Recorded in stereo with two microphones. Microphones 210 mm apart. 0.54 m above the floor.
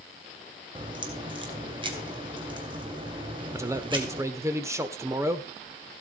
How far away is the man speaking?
About 1.3 m.